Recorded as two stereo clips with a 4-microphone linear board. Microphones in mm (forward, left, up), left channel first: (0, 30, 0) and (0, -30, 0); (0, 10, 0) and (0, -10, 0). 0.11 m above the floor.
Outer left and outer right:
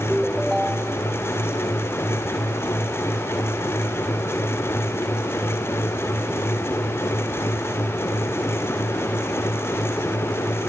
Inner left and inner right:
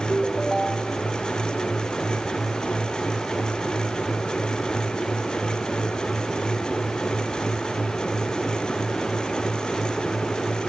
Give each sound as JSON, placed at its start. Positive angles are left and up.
{"t": 0.1, "sound": "a ringtone", "side_deg": -5}